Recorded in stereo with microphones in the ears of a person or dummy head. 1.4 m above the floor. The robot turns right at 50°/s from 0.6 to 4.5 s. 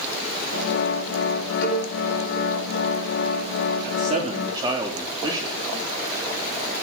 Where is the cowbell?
70° left (ahead or behind), 9 m; by 1.8 s 80° left, 9 m.